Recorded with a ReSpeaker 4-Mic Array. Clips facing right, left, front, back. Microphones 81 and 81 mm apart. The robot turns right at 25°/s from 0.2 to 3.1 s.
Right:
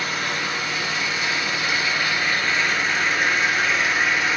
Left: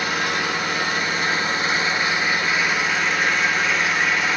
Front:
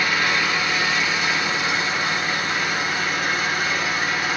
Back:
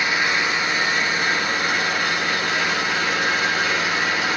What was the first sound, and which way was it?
An engine running, 110° left.